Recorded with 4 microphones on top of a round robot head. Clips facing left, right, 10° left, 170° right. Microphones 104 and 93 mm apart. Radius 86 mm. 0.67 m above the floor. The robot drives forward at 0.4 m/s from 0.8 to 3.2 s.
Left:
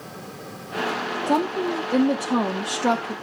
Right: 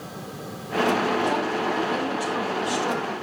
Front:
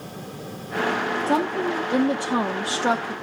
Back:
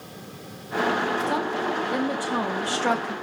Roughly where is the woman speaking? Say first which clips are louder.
Left 2 dB, front 3 dB; ahead left.